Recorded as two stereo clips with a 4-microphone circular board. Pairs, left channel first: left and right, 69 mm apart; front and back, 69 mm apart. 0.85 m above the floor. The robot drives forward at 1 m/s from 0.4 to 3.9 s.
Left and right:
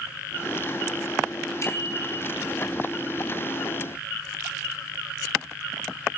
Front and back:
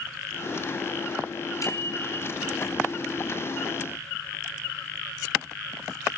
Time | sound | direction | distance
1.6 | a bicycle bell | 40° left | 5 m